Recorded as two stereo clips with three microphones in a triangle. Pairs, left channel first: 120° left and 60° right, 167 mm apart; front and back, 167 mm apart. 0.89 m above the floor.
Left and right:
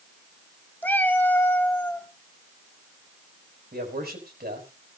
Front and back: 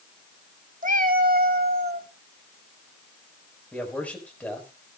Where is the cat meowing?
160° right, 0.9 m.